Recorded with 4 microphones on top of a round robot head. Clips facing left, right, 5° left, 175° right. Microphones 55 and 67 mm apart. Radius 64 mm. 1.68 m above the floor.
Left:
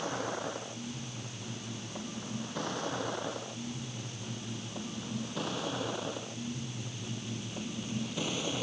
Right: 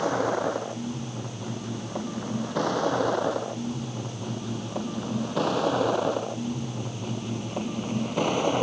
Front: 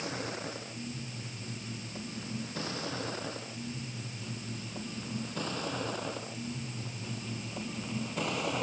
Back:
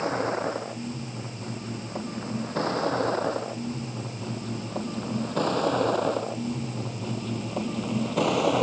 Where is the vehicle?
115° right; by 8.6 s 145° right.